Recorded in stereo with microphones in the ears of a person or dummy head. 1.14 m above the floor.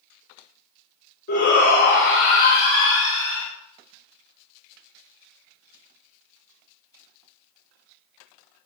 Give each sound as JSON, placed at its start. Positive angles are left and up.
{"t": 1.3, "sound": "a shout", "side_deg": 60, "distance_m": 3.5}